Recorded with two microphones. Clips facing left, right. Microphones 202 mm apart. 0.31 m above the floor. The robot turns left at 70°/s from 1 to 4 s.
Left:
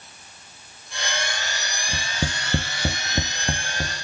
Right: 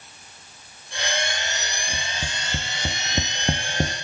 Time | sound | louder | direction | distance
1.9 | tapping | left 5 dB | 90° left | 1.5 m